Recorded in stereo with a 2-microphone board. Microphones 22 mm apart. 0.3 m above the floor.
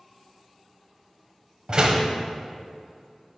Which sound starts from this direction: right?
A door slam, at 1.7 s.